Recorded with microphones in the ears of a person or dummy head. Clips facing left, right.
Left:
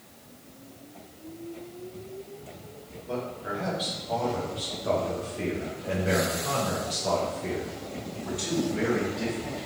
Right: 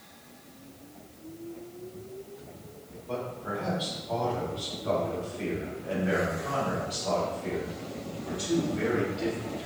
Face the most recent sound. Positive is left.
turn(degrees=65)  # may be behind; listen again after turning